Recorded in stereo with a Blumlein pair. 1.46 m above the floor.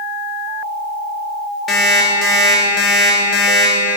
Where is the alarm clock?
20° left, 1.8 m.